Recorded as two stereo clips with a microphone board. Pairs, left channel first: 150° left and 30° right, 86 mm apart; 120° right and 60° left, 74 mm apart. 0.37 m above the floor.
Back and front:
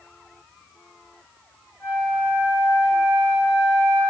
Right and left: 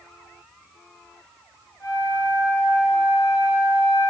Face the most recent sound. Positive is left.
turn(degrees=-150)